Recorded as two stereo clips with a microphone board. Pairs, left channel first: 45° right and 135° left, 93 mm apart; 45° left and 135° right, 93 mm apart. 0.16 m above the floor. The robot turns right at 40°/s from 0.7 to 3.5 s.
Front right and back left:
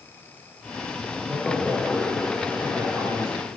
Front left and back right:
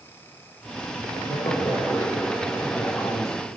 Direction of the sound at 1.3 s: 55° left.